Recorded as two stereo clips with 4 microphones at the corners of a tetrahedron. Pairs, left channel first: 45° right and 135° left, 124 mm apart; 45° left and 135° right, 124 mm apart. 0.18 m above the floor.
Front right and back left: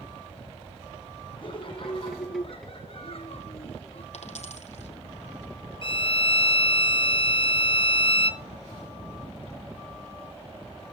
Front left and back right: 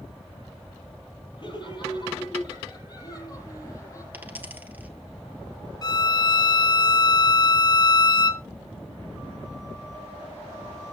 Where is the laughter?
Straight ahead, 6 m; by 4.0 s 15° right, 6.5 m.